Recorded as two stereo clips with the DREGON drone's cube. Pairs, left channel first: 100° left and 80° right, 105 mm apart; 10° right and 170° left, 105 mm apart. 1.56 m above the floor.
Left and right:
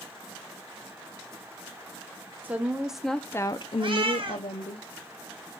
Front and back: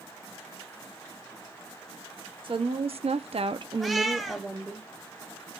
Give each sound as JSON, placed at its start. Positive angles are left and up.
{"t": 2.4, "sound": "a woman speaking", "azimuth_deg": -150, "distance_m": 1.1}
{"t": 3.8, "sound": "a cat meowing", "azimuth_deg": -100, "distance_m": 1.3}